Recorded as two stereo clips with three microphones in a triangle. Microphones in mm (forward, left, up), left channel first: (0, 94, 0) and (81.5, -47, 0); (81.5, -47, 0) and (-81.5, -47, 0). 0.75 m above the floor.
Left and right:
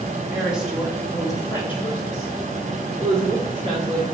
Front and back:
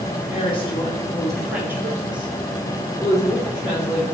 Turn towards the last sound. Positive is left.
turn(degrees=150)